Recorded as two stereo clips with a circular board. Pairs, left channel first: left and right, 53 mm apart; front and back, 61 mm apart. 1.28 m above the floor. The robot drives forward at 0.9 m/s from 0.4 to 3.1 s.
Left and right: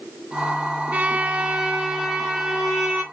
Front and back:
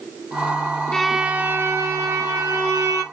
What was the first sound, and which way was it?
A violin, 70° right.